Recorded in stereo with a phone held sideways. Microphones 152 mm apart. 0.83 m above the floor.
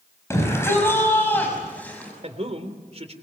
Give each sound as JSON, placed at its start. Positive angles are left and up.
{"t": 0.3, "sound": "a shout", "side_deg": 20, "distance_m": 5.0}
{"t": 2.2, "sound": "a man speaking", "side_deg": -45, "distance_m": 3.5}